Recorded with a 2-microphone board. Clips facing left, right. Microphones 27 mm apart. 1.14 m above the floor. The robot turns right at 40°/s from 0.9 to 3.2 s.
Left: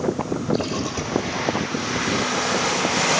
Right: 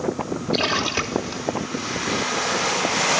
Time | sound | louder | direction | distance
0.5 | a splash | right 8 dB | 60° right (ahead or behind) | 3 m